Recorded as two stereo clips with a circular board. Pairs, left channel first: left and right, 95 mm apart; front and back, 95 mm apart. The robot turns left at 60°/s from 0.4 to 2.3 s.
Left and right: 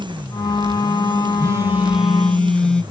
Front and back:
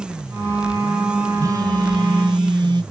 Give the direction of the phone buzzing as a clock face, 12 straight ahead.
4 o'clock.